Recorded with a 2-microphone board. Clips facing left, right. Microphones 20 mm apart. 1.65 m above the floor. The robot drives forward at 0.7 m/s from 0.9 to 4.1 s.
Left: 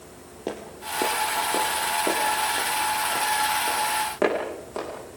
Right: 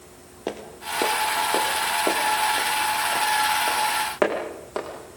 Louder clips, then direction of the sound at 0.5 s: Right 2 dB; 15° right (ahead or behind).